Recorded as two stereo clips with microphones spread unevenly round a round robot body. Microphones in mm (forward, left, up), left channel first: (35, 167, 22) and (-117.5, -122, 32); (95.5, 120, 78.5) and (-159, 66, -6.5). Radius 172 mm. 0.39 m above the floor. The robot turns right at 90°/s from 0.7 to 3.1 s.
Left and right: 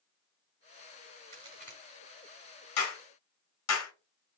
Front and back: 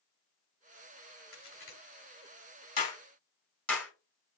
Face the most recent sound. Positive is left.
turn(degrees=105)